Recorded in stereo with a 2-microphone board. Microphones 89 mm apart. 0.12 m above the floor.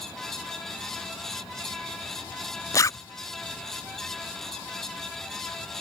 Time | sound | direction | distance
2.7 | a zipper | 35° left (ahead or behind) | ?